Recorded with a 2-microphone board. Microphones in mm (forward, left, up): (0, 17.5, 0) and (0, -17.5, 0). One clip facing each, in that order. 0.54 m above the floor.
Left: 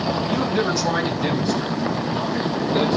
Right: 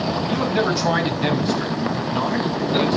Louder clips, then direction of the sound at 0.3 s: Right 2 dB; 20° right (ahead or behind).